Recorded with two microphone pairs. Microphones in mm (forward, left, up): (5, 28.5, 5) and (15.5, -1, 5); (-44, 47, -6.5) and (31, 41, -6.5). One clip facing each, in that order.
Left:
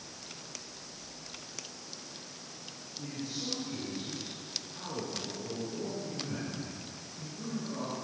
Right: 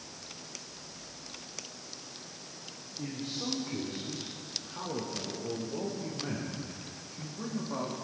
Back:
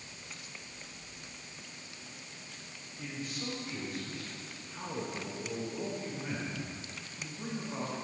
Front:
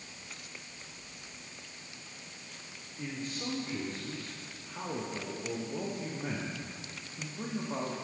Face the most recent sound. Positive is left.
turn(degrees=-25)